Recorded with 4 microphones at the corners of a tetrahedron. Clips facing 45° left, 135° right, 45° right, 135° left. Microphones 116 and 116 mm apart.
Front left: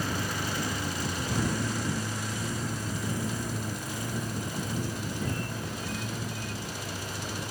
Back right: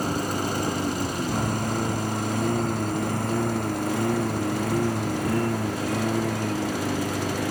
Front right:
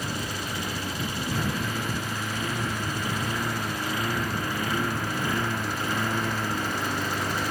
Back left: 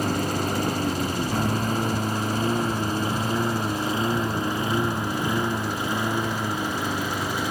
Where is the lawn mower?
175° left; by 7.5 s 145° right.